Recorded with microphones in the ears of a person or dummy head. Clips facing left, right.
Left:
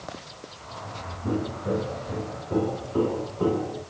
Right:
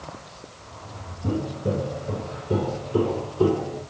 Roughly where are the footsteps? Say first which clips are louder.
Right 1 dB; right.